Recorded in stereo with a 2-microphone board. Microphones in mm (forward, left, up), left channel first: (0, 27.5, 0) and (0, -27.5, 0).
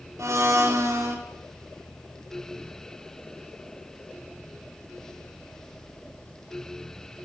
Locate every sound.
0.2 s a blender: 70° right (ahead or behind), 4 m